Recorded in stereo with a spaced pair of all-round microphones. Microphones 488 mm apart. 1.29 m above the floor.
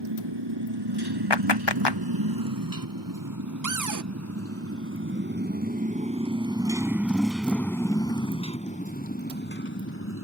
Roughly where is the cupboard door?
Right.